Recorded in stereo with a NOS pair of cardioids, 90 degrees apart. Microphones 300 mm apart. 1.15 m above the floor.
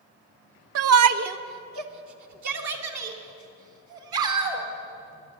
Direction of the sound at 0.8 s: 50° right.